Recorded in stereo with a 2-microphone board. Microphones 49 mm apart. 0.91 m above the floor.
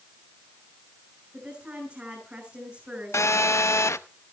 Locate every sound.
1.3 s a woman speaking: 20° right (ahead or behind), 6.5 m
3.1 s a phone buzzing: 70° left (ahead or behind), 0.6 m